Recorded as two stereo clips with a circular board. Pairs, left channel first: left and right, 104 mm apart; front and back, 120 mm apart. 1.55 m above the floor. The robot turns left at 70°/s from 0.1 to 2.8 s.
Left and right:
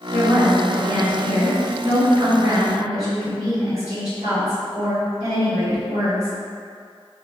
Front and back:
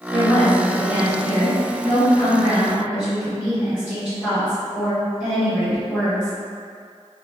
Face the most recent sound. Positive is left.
turn(degrees=-100)